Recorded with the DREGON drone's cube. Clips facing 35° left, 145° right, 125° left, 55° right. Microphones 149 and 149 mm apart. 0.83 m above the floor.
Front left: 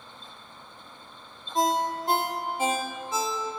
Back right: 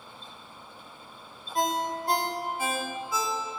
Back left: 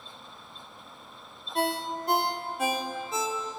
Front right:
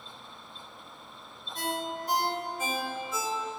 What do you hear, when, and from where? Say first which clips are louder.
1.6 s a ringtone: front left 3 dB, back left 4 dB; 100° left, 0.8 m